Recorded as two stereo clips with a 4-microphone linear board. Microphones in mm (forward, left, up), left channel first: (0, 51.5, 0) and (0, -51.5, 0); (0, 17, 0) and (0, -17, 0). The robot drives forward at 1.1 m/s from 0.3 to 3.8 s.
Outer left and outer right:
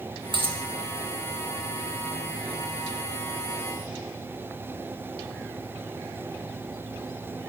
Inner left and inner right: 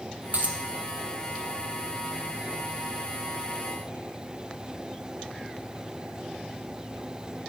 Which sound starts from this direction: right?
A dropped coin, at 0.3 s.